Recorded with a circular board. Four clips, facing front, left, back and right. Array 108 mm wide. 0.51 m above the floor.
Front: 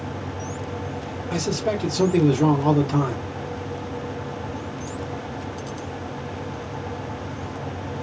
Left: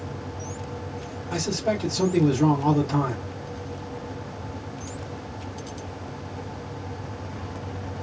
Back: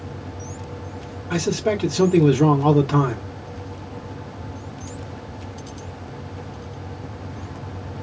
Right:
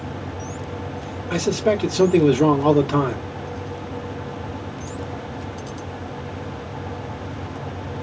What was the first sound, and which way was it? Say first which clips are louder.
A man speaking: right 6 dB, back 3 dB; 125° right.